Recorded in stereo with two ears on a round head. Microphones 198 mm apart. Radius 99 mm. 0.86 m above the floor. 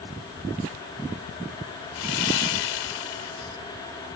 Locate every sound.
1.9 s sawing: 70° left (ahead or behind)